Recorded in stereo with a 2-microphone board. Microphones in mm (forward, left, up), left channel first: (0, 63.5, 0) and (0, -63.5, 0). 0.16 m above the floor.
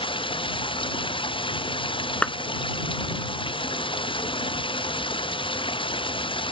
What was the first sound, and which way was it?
Running water, 40° left (ahead or behind).